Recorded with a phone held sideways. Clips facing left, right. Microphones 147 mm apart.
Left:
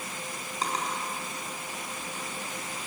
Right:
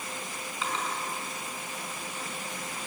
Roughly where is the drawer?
Left.